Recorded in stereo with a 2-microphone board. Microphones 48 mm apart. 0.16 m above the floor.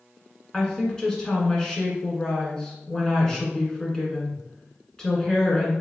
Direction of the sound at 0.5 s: 10° left (ahead or behind).